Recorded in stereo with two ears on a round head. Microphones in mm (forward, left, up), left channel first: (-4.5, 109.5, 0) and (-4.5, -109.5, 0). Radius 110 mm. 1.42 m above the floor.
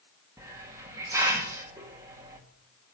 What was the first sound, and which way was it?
A hiss, 15° right (ahead or behind).